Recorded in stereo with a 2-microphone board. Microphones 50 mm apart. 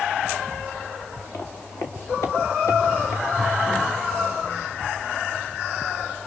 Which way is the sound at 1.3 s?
55° left (ahead or behind).